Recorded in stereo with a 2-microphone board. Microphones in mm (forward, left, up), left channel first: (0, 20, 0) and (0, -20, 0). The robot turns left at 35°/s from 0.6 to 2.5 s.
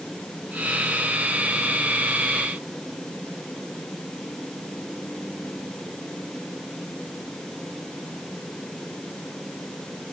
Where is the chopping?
No chopping in this recording.